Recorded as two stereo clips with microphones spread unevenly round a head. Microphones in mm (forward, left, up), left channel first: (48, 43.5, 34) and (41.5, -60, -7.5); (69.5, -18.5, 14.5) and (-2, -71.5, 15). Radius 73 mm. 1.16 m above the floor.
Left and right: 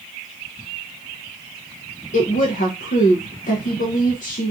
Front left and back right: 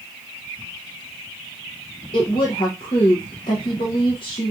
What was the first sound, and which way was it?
A woman speaking, 80° left.